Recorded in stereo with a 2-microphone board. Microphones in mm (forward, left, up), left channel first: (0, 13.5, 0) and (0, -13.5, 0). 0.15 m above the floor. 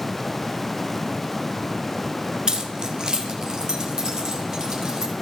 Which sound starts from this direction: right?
Keys jangling, at 2.5 s.